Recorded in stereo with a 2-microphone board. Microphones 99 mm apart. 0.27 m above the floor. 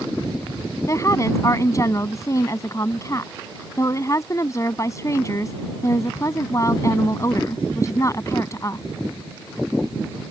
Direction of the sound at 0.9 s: 35° left (ahead or behind).